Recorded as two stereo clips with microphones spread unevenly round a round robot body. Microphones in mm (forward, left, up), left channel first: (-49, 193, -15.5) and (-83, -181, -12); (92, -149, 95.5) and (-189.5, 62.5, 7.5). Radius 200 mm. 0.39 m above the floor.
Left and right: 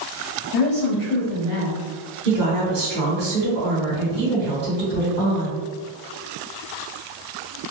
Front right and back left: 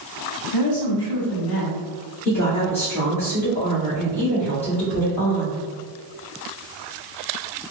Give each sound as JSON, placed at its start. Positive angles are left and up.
{"t": 0.5, "sound": "a woman speaking", "azimuth_deg": 10, "distance_m": 1.6}
{"t": 2.2, "sound": "a woman speaking", "azimuth_deg": -135, "distance_m": 1.4}